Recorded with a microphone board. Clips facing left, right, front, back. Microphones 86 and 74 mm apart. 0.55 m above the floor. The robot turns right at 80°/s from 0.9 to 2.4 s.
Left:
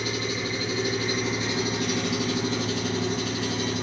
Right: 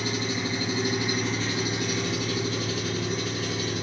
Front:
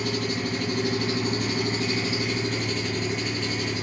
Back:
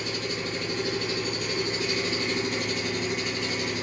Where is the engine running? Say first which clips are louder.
Even, front 4 dB; 25° right, 2 m; by 3.8 s 95° left, 2 m.